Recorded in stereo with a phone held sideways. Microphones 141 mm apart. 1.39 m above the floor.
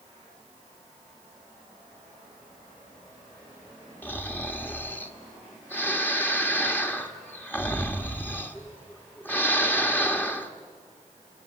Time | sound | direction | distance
4.0 | snoring | 15° left (ahead or behind) | 1.4 m